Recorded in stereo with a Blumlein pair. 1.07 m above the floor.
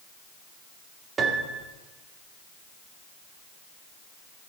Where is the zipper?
No zipper in this recording.